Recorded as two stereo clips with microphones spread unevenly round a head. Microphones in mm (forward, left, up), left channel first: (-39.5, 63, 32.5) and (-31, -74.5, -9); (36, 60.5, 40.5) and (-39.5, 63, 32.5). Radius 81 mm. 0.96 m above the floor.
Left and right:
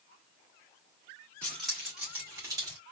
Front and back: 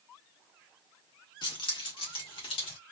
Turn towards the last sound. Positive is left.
turn(degrees=-20)